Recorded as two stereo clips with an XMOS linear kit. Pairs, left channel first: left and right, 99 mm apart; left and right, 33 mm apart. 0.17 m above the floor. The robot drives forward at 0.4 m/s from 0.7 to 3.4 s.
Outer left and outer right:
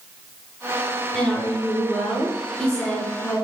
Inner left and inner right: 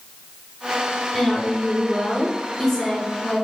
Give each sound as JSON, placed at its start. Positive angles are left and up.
{"t": 1.1, "sound": "a woman speaking", "side_deg": 10, "distance_m": 1.5}